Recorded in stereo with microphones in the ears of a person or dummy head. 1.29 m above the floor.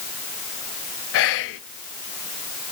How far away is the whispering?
About 0.5 m.